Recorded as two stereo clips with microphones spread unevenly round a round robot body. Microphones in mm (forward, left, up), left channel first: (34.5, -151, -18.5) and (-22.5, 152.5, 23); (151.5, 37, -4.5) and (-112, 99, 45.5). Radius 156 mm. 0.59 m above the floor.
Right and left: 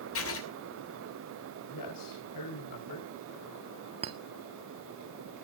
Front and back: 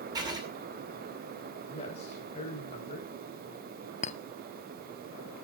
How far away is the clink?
About 0.6 m.